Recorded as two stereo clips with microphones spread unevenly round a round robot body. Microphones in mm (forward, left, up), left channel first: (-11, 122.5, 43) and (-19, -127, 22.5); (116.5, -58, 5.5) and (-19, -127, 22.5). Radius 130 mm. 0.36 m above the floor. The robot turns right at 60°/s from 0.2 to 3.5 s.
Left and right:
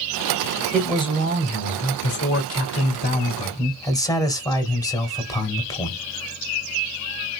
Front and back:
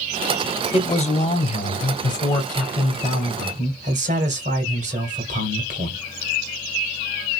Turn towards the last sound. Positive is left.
turn(degrees=165)